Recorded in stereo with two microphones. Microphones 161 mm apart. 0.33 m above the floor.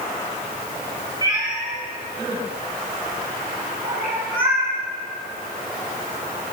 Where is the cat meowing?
30° right (ahead or behind), 4.5 m; by 4.7 s 70° right (ahead or behind), 4.5 m.